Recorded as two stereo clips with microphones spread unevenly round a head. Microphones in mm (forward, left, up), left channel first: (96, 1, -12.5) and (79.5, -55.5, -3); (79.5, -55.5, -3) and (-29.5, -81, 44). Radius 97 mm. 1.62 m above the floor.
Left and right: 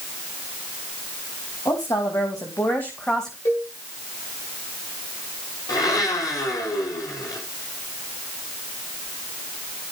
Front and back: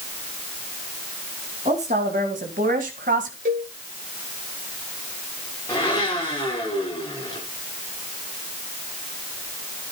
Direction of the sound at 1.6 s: 140° left.